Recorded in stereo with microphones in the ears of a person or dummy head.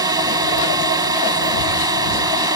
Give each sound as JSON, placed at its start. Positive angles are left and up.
{"t": 0.0, "sound": "a drone", "side_deg": -25}